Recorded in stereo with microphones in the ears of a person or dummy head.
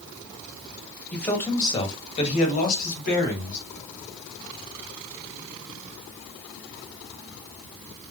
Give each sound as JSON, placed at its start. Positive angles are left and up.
{"t": 1.1, "sound": "a man speaking", "side_deg": 5, "distance_m": 1.0}